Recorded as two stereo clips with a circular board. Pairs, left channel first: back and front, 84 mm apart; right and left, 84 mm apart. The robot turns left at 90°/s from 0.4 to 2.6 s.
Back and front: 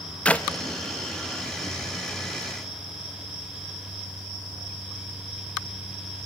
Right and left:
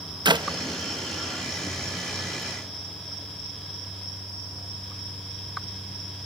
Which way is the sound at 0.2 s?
105° left.